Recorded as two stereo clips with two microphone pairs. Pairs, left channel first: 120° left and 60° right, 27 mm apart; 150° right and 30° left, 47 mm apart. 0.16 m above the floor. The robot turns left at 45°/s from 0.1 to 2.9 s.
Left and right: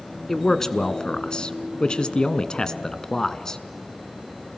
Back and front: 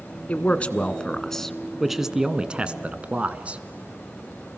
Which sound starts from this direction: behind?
A man speaking, at 0.3 s.